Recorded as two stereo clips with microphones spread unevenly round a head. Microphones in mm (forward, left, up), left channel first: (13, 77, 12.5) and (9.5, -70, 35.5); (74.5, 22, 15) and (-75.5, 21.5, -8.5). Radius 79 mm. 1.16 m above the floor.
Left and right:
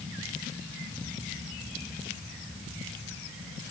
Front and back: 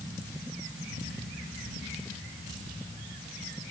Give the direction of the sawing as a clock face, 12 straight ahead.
I don't hear sawing.